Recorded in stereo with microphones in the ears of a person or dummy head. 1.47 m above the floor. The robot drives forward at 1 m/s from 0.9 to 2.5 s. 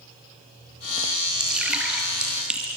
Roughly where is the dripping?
Centre.